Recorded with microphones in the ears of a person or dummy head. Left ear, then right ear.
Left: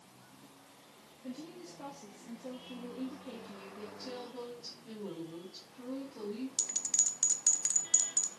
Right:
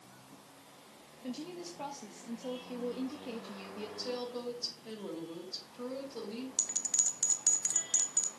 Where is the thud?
No thud in this recording.